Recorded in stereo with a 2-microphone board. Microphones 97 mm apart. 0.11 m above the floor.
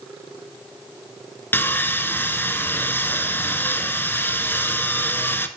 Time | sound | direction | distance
1.5 | sawing | 20° left (ahead or behind) | 0.7 m